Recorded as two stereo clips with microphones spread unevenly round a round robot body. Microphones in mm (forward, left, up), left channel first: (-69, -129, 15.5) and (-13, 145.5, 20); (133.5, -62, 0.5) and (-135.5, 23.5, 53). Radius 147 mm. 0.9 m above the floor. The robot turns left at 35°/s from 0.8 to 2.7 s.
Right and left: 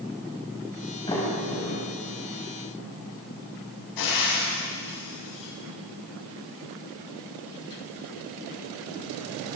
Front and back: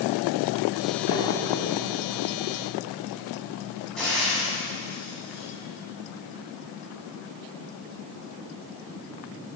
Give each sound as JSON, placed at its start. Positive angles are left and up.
{"t": 1.1, "sound": "a sliding door", "azimuth_deg": -25, "distance_m": 5.5}
{"t": 4.0, "sound": "frying", "azimuth_deg": -105, "distance_m": 7.5}